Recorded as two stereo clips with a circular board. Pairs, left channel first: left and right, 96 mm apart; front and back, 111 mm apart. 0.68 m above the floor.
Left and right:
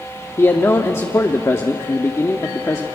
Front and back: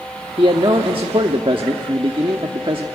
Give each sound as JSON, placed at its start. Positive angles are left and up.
{"t": 0.4, "sound": "a man speaking", "azimuth_deg": 145, "distance_m": 1.0}